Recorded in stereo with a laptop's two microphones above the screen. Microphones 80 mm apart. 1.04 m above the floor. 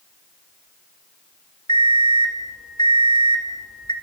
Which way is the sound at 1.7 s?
70° left (ahead or behind).